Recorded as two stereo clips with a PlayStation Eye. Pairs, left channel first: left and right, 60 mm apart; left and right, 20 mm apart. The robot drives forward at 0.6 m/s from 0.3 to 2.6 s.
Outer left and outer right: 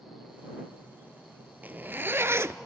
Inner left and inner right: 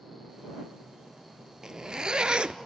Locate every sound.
1.6 s a zipper: 30° right (ahead or behind), 0.9 m; by 2.6 s 55° right (ahead or behind), 0.6 m